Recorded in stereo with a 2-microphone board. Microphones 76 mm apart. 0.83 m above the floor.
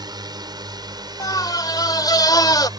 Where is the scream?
60° left (ahead or behind).